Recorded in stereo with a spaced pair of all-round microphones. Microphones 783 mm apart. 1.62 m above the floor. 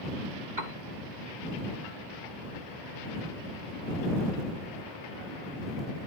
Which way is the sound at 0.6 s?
65° right (ahead or behind).